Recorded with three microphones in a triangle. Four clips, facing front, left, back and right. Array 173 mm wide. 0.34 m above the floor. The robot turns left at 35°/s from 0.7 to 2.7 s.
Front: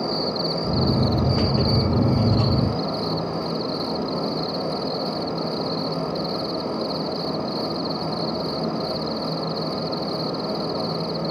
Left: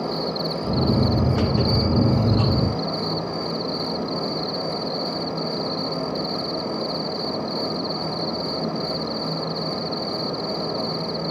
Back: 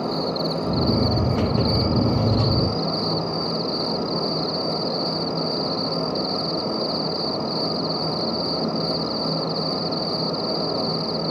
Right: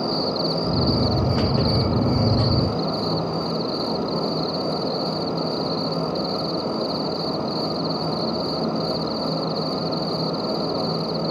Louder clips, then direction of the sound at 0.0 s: Right 2 dB, back 1 dB; 85° right.